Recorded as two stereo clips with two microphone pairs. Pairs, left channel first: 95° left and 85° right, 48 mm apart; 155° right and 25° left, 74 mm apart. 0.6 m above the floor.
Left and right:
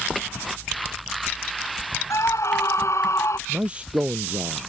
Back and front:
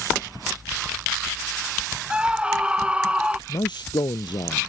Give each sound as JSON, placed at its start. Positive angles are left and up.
{"t": 2.1, "sound": "a scream", "azimuth_deg": 100}
{"t": 3.5, "sound": "a man speaking", "azimuth_deg": -150}